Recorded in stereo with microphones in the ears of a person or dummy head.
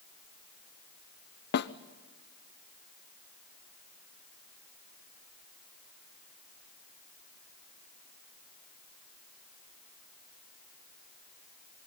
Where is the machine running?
No machine running in this recording.